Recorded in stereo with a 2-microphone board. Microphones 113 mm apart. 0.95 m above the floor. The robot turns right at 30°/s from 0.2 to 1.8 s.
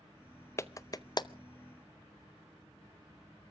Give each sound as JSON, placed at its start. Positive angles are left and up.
{"t": 0.6, "sound": "a clap", "side_deg": 25, "distance_m": 0.6}